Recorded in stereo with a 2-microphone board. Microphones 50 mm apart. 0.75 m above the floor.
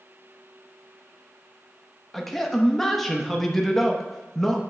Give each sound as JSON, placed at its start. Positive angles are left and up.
{"t": 2.1, "sound": "a man speaking", "side_deg": 5, "distance_m": 0.8}